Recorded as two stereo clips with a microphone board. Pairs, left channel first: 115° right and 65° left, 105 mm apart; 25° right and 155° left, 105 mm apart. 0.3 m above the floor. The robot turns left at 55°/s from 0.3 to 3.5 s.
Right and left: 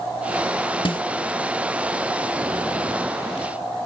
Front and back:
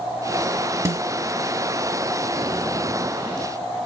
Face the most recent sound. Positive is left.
turn(degrees=75)